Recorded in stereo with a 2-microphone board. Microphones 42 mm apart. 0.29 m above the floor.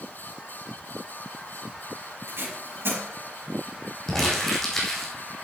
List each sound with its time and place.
2.3 s tape being pulled: 80° right, 4.5 m
4.1 s crumpling: 10° left (ahead or behind), 3 m